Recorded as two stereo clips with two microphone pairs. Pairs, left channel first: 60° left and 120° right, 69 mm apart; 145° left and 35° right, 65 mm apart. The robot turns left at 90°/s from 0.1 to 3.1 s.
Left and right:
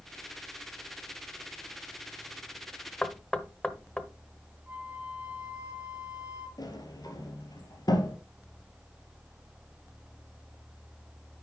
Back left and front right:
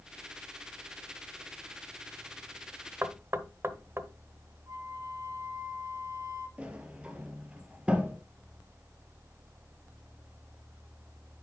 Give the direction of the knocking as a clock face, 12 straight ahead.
12 o'clock.